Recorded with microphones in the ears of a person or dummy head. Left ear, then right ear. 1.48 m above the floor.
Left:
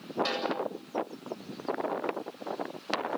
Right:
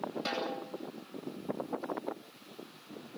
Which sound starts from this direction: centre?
A snare drum, at 0.2 s.